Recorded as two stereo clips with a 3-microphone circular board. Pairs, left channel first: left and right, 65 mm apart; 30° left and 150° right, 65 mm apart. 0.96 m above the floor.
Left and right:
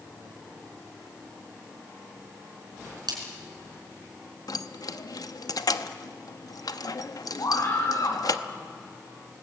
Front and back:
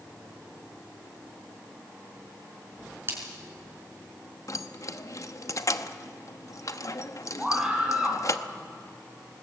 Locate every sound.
3.1 s a splash: 95° right, 4.5 m
4.5 s keys jangling: 65° left, 0.8 m
7.4 s a scream: 125° left, 7.5 m